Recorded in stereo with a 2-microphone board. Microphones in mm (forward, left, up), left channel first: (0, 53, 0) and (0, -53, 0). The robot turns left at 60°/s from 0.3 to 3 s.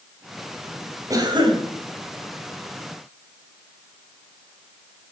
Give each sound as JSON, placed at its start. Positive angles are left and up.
{"t": 1.1, "sound": "a cough", "azimuth_deg": -35, "distance_m": 2.5}